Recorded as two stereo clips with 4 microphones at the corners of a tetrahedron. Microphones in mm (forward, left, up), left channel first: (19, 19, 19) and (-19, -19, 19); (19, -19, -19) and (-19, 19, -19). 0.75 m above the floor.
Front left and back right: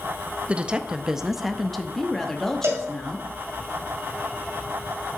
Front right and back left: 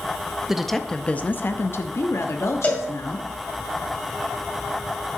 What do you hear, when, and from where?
0.5 s a woman speaking: 160° right, 0.5 m; by 3.3 s 30° right, 1.4 m
2.6 s a cowbell: 105° right, 1.9 m